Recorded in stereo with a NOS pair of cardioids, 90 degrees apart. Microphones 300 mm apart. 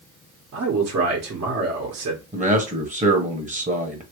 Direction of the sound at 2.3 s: 25° right.